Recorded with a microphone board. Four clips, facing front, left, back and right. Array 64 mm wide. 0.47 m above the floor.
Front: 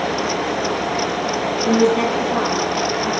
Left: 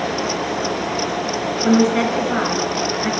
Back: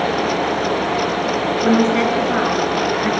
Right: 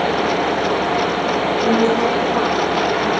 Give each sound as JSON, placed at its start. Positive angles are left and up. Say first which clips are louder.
{"t": 1.6, "sound": "a woman speaking", "louder": "left 2 dB, even", "azimuth_deg": 145, "distance_m": 8.0}